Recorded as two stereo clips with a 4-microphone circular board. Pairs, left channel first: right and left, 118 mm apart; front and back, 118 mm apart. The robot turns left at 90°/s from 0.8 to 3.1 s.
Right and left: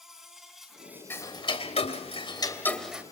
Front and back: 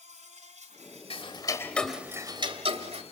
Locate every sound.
0.0 s an insect: 175° left, 3.5 m; by 3.1 s 30° right, 3.5 m
1.1 s ticking: 20° right, 1.8 m; by 3.0 s 165° left, 1.8 m